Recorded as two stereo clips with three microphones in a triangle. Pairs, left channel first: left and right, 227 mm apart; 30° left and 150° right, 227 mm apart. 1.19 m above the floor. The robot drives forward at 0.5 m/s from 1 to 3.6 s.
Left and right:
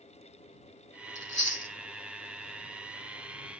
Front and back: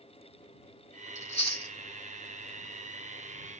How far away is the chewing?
About 1.5 m.